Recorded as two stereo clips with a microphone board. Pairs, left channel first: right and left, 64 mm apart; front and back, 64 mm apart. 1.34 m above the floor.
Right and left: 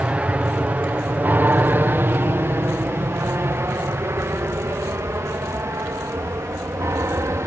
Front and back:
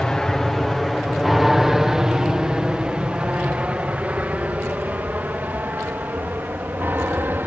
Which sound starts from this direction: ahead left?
An aircraft, at 0.0 s.